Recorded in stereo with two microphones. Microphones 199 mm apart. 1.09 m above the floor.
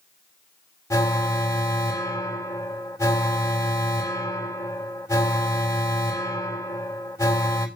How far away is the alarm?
About 3.5 m.